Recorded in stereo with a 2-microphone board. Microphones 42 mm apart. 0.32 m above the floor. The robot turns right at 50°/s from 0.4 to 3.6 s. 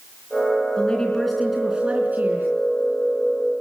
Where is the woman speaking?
150° left, 4 m; by 2.5 s 125° right, 4 m.